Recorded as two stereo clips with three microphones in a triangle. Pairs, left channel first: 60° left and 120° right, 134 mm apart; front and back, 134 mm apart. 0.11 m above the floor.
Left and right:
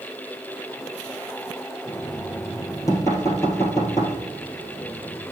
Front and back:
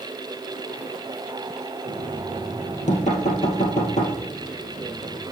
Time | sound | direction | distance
1.9 | knocking | 5° right | 2.0 m